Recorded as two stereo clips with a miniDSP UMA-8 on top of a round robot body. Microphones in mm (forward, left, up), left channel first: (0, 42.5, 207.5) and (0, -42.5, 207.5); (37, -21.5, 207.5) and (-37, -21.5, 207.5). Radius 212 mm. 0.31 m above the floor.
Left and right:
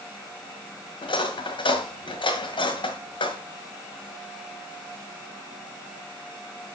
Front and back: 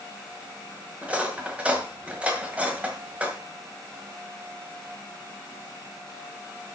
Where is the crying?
No crying in this recording.